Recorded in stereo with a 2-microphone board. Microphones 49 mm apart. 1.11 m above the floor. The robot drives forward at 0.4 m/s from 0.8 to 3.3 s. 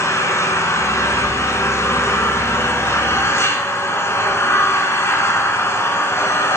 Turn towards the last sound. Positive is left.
turn(degrees=65)  # may be behind; listen again after turning